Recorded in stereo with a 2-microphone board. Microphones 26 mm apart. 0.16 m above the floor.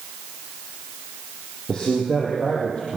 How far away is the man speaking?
About 6.5 m.